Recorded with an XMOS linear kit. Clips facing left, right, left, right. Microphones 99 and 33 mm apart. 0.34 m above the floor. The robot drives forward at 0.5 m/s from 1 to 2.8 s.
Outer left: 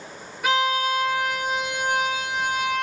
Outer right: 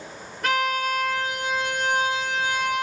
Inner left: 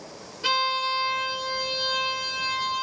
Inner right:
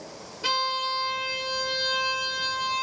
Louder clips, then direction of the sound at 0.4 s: Outer left 2 dB, inner left 2 dB; 5° left (ahead or behind).